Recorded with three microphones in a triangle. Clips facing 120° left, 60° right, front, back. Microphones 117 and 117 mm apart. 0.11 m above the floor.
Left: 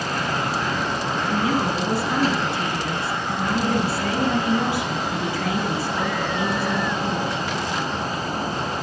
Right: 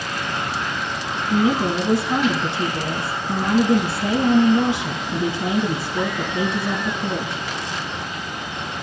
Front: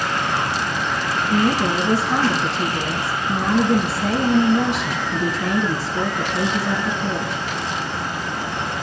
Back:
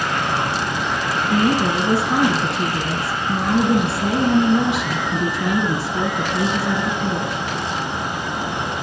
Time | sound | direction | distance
1.3 | a woman speaking | 95° right | 1.2 m